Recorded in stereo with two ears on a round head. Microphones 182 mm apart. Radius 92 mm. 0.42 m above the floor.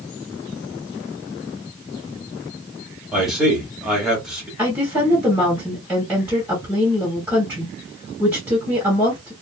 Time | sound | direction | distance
3.1 | a man speaking | 5° right (ahead or behind) | 1.4 m
4.6 | a woman speaking | 10° right (ahead or behind) | 1.5 m